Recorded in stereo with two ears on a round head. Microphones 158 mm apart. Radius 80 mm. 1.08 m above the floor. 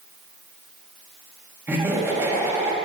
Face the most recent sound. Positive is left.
turn(degrees=-15)  # may be behind; listen again after turning